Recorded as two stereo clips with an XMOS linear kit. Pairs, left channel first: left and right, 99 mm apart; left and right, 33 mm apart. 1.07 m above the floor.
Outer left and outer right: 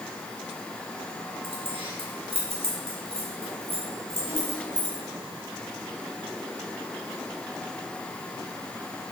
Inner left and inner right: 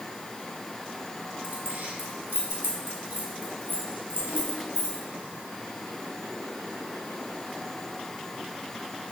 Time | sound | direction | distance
1.4 | keys jangling | 65° right (ahead or behind) | 3 m